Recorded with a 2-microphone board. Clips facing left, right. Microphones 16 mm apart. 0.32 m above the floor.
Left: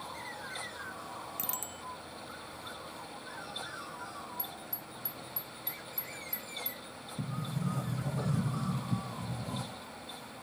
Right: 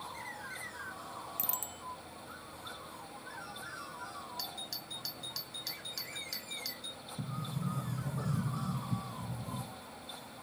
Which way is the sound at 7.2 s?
30° left (ahead or behind).